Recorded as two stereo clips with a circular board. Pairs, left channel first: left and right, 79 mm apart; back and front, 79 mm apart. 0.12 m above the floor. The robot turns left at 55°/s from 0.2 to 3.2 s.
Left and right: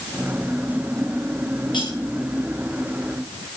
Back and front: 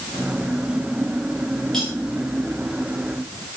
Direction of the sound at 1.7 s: 100° left.